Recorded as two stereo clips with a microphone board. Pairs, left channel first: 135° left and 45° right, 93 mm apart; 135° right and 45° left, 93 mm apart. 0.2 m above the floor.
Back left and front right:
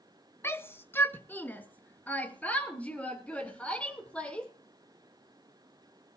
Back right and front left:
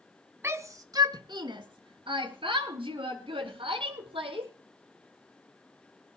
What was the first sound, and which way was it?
A shout, 90° left.